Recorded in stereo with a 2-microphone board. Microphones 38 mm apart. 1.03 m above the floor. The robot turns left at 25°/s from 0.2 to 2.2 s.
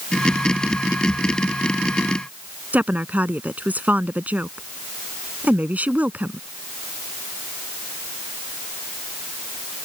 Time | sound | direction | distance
2.7 | a woman speaking | 50° right (ahead or behind) | ?